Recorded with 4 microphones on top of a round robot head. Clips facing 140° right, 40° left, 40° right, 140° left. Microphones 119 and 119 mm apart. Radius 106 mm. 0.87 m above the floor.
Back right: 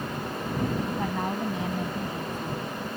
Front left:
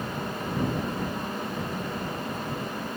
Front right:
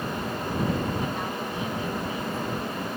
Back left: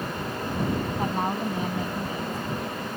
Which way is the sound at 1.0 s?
165° right.